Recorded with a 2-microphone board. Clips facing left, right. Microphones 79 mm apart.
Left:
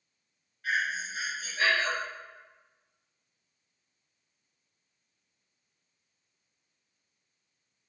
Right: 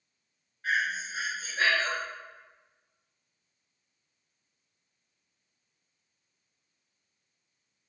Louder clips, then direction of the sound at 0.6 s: Right 1 dB; 35° right (ahead or behind).